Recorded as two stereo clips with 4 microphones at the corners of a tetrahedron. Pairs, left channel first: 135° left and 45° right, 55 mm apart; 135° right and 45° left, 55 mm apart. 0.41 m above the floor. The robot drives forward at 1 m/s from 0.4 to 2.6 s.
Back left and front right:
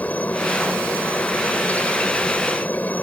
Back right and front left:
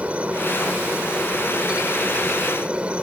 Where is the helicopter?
95° left; by 3.0 s 100° left.